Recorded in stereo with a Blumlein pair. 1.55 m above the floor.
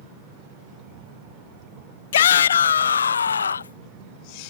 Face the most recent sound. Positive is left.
turn(degrees=70)